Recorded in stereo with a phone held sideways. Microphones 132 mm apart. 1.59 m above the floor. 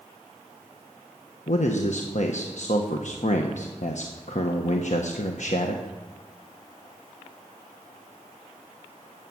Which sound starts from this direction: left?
A man speaking, at 1.5 s.